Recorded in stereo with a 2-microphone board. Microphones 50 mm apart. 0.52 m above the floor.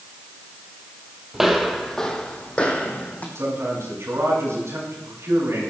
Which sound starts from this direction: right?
A man speaking, at 3.4 s.